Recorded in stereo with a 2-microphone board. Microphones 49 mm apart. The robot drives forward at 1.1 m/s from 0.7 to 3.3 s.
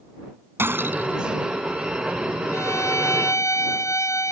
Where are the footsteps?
No footsteps in this recording.